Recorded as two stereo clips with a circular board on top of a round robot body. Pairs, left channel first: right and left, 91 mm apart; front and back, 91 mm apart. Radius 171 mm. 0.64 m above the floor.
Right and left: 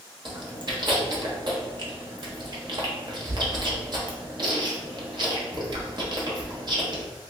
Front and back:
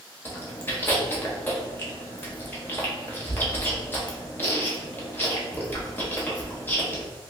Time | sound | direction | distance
0.2 | chewing | 65° left | 1.0 m